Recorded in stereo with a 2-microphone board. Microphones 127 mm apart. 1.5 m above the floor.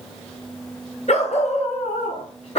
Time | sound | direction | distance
1.1 | a dog barking | 65° left (ahead or behind) | 4 m